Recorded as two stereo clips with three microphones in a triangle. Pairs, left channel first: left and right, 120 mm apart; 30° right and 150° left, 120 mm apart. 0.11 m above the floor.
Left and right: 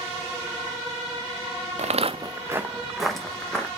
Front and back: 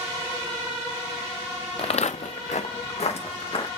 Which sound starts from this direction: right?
Footsteps, at 1.8 s.